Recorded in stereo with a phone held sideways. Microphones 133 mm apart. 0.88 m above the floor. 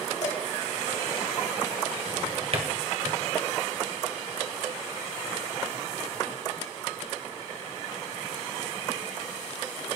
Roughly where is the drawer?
Right.